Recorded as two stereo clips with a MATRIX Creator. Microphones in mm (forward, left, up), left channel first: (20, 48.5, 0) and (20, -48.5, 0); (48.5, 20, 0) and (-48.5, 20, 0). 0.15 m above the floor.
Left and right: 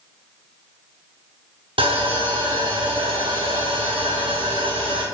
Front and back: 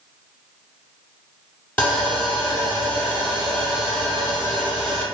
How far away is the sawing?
About 0.9 m.